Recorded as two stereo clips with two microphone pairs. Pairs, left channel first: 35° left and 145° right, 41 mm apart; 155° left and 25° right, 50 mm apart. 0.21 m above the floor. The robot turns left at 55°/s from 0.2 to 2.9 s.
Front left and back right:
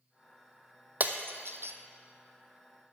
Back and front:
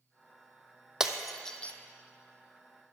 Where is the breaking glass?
105° right, 0.9 m; by 1.7 s 145° right, 0.9 m.